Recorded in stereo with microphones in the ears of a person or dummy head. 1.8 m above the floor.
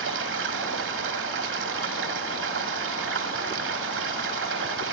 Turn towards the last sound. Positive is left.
turn(degrees=-65)  # may be behind; listen again after turning